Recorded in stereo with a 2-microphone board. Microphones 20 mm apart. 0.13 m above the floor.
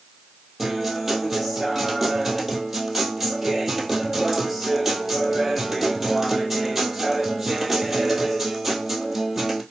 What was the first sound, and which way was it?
A guitar, 25° right (ahead or behind).